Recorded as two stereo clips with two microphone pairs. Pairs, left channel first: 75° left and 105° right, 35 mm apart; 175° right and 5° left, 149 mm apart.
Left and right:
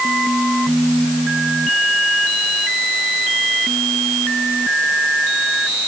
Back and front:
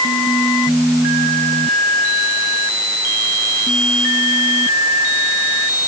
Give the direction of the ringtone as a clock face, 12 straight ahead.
No ringtone in this recording.